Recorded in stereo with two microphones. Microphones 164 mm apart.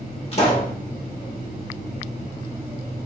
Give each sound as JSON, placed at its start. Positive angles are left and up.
{"t": 0.3, "sound": "a pop", "side_deg": 40, "distance_m": 1.1}